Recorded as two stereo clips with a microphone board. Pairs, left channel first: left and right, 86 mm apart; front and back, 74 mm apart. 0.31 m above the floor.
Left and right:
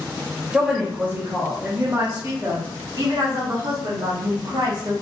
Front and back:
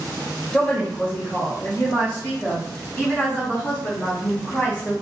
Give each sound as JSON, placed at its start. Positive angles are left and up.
{"t": 0.5, "sound": "a woman speaking", "azimuth_deg": -30, "distance_m": 1.3}